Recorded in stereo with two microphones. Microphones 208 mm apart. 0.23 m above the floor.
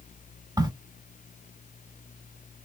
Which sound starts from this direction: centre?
A crack, at 0.6 s.